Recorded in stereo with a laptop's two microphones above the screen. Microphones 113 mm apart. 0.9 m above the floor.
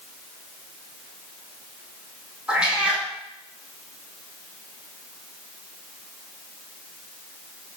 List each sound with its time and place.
2.5 s a cat meowing: 10° right (ahead or behind), 1.0 m